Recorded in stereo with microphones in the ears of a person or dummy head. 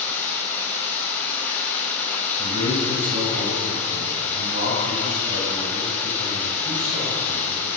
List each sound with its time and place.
0.0 s running water: 10° left (ahead or behind), 6.5 m
2.4 s a man speaking: 45° right (ahead or behind), 8 m